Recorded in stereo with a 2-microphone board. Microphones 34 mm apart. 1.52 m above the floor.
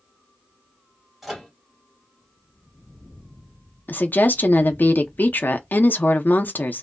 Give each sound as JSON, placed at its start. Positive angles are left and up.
{"t": 1.2, "sound": "a microwave", "side_deg": 0, "distance_m": 1.0}
{"t": 3.9, "sound": "a woman speaking", "side_deg": 65, "distance_m": 0.6}